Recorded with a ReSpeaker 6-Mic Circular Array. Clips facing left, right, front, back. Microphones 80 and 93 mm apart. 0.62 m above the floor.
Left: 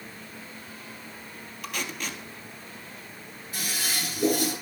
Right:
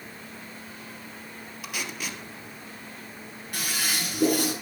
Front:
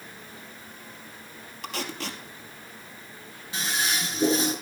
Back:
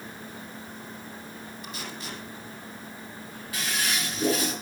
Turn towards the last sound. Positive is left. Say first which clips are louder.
# right 2 dB, front 1 dB
turn(degrees=-65)